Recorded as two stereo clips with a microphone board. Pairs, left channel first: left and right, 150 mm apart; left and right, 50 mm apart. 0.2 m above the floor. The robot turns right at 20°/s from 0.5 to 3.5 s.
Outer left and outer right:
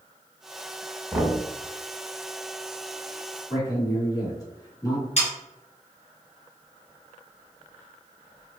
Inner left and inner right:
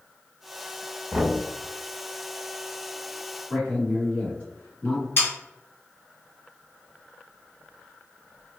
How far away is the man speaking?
About 1.4 m.